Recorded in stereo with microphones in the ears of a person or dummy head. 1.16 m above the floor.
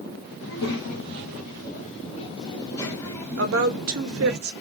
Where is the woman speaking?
65° right (ahead or behind), 0.7 m.